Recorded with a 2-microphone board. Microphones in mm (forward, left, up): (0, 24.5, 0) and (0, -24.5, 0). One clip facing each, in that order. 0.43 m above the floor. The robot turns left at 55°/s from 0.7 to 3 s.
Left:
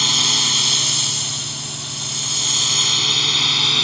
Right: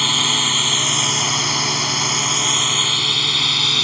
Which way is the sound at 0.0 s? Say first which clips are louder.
Right 2 dB; 15° right (ahead or behind).